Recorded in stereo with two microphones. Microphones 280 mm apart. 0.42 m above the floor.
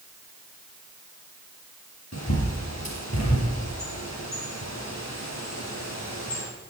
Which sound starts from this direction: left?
A bird, at 2.1 s.